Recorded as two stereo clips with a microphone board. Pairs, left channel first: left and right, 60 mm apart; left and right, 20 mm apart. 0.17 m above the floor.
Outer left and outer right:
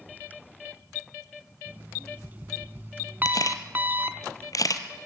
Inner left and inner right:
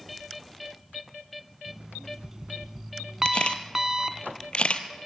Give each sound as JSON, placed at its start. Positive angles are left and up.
{"t": 1.7, "sound": "an alarm clock", "side_deg": -30, "distance_m": 0.7}
{"t": 3.2, "sound": "a camera shutter", "side_deg": 65, "distance_m": 1.6}